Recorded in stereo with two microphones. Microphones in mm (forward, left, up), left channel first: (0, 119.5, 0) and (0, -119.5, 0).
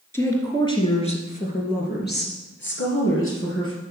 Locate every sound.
0.1 s a woman speaking: 10° left (ahead or behind), 2.5 m; by 3.7 s 60° left (ahead or behind), 3 m